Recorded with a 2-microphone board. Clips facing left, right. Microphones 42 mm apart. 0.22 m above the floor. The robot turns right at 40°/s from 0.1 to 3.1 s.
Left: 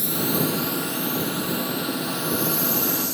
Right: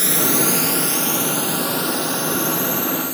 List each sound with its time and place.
0.0 s a drone: 65° right (ahead or behind); by 3.1 s 30° right (ahead or behind)